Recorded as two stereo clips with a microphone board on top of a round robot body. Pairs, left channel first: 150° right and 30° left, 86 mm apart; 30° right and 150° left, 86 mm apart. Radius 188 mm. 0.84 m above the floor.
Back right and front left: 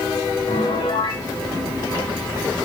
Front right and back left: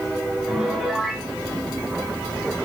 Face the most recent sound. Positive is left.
turn(degrees=-120)